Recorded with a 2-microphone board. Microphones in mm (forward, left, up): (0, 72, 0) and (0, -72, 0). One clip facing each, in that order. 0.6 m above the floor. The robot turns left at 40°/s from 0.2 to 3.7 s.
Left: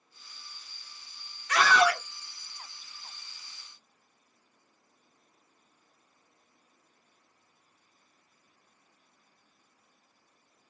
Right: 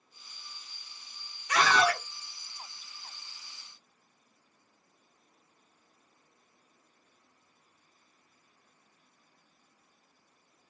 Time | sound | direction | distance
1.5 | a scream | 15° right (ahead or behind) | 1.6 m